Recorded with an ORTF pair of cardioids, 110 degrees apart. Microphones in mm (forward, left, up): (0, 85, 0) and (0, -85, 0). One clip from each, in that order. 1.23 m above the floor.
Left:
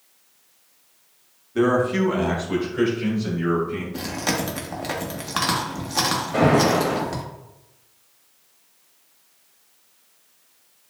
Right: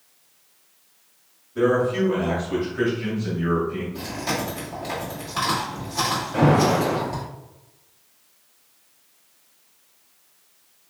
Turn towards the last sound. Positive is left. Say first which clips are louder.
# left 1 dB
turn(degrees=30)